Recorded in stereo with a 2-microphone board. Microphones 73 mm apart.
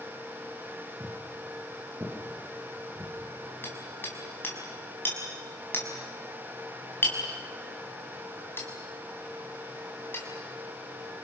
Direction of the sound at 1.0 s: 30° right (ahead or behind).